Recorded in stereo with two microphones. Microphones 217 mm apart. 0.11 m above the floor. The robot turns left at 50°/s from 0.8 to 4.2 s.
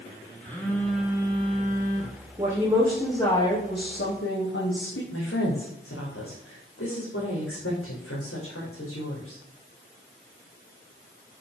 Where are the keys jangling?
I don't hear keys jangling.